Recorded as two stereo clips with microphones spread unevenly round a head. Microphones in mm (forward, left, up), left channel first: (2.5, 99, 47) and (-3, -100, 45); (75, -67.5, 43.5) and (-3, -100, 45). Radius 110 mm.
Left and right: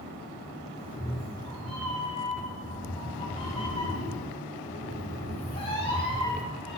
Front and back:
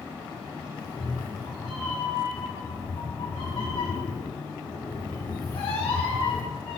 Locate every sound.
0.8 s a cat meowing: 25° left, 1.4 m